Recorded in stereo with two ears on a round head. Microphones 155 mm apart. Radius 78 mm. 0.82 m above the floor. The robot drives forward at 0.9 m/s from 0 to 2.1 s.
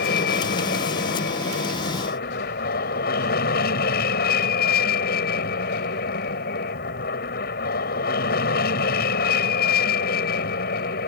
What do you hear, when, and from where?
0.0 s an aircraft: 60° left (ahead or behind)